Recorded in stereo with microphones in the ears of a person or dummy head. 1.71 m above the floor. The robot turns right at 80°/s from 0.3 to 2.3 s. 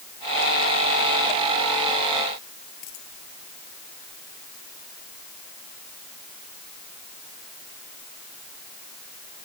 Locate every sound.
2.8 s a dropped coin: 70° left (ahead or behind)